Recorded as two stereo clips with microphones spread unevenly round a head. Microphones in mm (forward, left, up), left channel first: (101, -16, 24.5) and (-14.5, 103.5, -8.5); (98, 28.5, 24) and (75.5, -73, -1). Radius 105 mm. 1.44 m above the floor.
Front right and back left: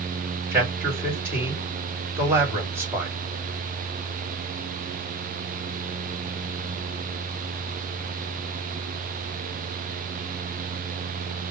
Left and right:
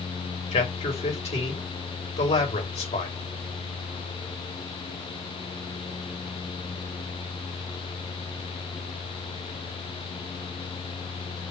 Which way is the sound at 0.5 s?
60° left.